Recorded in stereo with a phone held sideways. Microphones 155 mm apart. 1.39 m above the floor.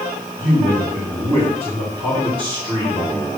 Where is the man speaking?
50° right (ahead or behind), 5.5 m; by 3.3 s 30° right (ahead or behind), 5 m.